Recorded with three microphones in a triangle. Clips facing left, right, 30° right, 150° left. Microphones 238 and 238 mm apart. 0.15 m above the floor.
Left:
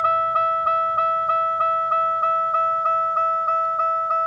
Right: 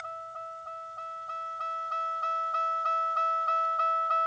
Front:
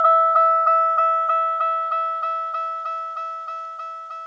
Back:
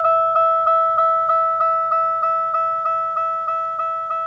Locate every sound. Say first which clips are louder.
0.0 s a vehicle: left 18 dB, back 2 dB; 85° left; by 4.3 s 125° left